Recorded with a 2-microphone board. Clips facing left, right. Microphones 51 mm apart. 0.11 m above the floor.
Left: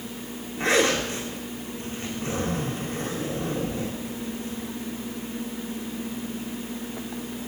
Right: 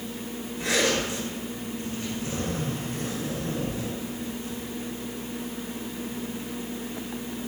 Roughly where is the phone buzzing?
No phone buzzing in this recording.